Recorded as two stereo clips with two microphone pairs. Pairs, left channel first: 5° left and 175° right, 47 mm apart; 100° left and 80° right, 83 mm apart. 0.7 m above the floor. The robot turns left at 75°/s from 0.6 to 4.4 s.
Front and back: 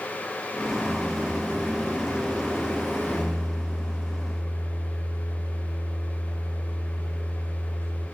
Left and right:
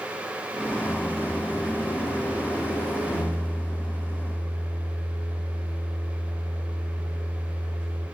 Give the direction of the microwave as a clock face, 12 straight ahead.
5 o'clock.